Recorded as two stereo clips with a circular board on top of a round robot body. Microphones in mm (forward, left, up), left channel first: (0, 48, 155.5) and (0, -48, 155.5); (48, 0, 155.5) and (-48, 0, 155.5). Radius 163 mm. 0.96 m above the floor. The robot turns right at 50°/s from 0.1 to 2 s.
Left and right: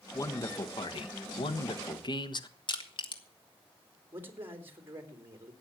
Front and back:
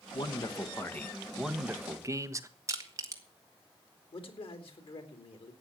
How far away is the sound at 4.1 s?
About 3.5 m.